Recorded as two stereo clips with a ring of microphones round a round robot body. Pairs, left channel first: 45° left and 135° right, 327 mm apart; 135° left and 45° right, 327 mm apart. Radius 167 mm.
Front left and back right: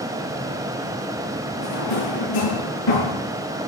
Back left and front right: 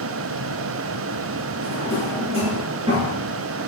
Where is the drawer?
30° left, 6 m.